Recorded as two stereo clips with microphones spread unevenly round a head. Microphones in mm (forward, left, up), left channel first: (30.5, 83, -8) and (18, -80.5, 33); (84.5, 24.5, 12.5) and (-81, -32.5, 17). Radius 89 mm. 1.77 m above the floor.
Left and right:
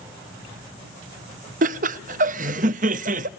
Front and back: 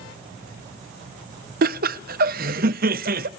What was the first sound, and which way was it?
Laughter, 125° right.